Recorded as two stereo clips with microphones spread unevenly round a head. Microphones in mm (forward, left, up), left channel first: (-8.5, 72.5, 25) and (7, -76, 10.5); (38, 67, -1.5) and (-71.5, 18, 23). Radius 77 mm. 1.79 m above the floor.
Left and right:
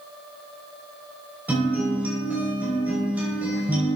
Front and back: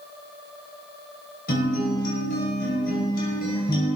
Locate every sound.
1.5 s a guitar: 5° right, 6 m